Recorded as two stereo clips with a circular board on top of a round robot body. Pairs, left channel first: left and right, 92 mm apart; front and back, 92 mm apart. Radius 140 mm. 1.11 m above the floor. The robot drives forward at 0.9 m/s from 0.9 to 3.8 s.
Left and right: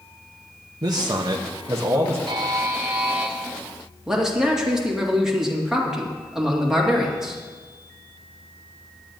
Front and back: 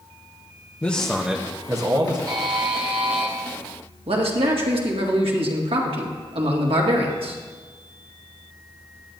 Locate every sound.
0.8 s a man speaking: 70° right, 0.8 m; by 2.2 s 150° right, 1.3 m
2.3 s a buzzer: 130° right, 0.7 m; by 3.3 s 160° right, 1.4 m
4.1 s a man speaking: 175° right, 1.9 m